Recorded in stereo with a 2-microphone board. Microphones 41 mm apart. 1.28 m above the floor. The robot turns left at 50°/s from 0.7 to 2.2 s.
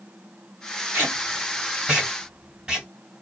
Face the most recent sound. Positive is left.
turn(degrees=-20)  # may be behind; listen again after turning